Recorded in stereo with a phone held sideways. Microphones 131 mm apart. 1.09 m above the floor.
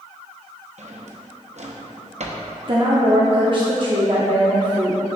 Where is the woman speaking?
40° right (ahead or behind), 0.7 m.